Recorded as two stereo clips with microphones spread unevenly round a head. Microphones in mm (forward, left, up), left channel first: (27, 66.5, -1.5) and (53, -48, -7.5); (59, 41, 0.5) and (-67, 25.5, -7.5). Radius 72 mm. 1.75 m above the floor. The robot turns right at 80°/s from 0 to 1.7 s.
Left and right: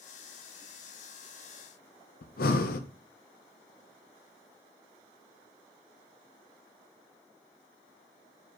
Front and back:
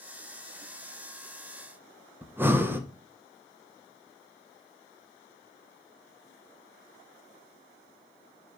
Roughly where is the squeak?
I don't hear a squeak.